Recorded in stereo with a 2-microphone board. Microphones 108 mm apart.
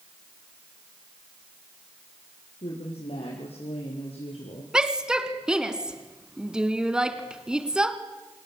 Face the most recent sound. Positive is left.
turn(degrees=-10)  # may be behind; listen again after turning